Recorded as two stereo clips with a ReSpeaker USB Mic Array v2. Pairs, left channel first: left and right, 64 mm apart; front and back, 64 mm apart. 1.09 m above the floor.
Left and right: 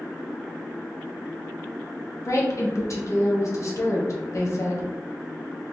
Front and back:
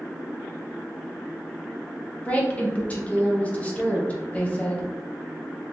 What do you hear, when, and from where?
2.2 s a woman speaking: 65° left, 1.2 m